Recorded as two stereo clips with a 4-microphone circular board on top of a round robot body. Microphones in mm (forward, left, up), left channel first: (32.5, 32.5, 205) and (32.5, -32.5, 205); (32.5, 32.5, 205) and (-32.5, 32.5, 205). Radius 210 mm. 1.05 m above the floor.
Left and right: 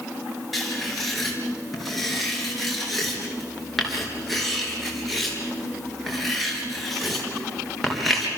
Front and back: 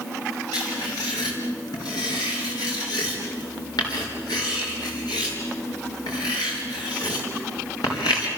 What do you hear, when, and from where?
0.5 s writing: straight ahead, 4.5 m